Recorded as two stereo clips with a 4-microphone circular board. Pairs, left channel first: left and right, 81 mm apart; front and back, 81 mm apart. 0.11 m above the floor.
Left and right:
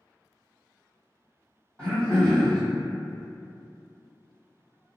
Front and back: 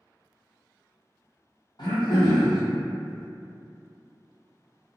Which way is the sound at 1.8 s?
15° left.